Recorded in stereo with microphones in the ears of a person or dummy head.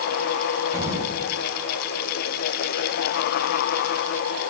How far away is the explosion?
About 9.5 m.